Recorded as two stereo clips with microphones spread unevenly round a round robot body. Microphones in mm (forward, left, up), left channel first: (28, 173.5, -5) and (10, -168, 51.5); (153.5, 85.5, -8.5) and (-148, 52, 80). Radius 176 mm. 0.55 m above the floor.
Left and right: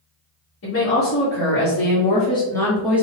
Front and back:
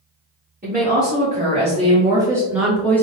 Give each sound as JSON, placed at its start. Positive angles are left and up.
{"t": 0.6, "sound": "a woman speaking", "azimuth_deg": 120, "distance_m": 2.0}